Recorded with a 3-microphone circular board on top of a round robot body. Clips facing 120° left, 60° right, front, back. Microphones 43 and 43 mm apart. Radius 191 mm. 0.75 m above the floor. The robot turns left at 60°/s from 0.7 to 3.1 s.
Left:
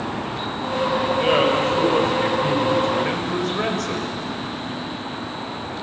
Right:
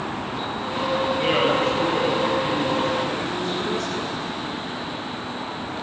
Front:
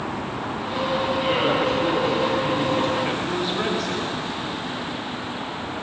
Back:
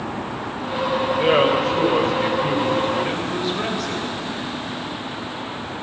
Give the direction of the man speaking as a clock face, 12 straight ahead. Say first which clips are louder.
Left 3 dB, back 6 dB; 5 o'clock.